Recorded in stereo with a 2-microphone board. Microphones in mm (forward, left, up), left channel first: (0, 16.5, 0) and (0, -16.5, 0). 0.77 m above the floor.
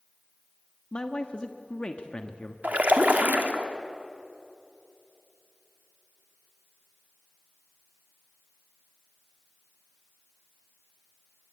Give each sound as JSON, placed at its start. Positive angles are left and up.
{"t": 0.9, "sound": "a man speaking", "side_deg": 35, "distance_m": 1.2}
{"t": 2.6, "sound": "a splash", "side_deg": -60, "distance_m": 1.9}